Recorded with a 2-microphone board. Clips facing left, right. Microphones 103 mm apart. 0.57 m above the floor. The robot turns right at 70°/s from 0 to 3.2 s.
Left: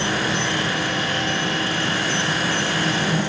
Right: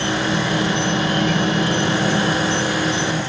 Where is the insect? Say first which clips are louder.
Right 3 dB; 155° left, 2.0 m; by 3.3 s 20° left, 2.0 m.